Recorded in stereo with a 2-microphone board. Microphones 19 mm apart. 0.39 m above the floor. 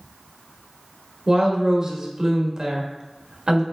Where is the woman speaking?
40° right (ahead or behind), 1.0 m.